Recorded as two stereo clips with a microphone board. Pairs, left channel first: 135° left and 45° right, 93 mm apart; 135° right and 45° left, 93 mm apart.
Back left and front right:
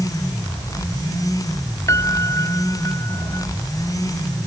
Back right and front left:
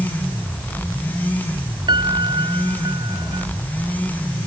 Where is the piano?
80° left.